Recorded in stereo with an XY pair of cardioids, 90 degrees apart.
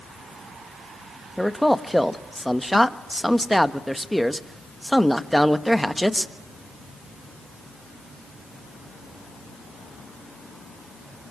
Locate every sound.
1.4 s a man speaking: straight ahead, 1.3 m